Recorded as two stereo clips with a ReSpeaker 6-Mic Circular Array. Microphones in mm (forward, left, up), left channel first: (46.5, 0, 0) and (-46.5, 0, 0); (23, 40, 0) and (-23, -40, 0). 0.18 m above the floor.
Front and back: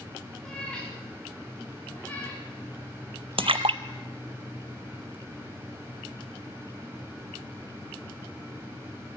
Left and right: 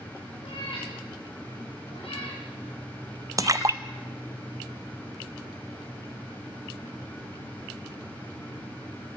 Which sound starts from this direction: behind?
A splash, at 3.4 s.